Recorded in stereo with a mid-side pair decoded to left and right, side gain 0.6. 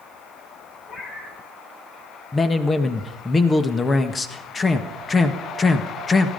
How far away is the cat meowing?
About 5.5 m.